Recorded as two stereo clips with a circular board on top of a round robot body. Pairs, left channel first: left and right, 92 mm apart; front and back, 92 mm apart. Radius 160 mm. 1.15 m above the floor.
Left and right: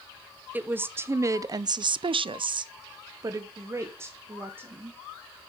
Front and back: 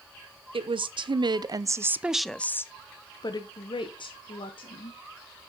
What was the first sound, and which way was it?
A woman speaking, 160° right.